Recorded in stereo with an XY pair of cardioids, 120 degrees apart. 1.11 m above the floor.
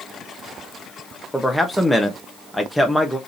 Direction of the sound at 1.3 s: Straight ahead.